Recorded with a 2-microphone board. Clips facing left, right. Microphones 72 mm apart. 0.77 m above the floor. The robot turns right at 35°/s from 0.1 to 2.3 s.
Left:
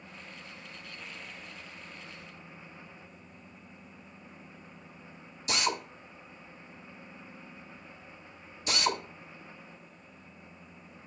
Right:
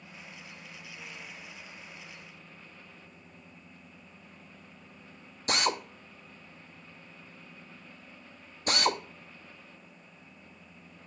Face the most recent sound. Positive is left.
turn(degrees=-45)  # may be behind; listen again after turning